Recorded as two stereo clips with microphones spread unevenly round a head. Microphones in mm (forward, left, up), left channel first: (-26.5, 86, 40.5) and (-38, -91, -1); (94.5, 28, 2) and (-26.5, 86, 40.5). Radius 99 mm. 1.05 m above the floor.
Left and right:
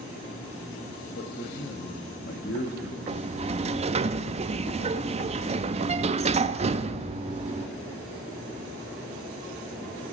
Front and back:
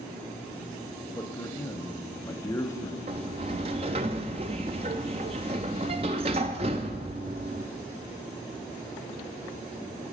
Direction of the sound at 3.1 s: 155° right.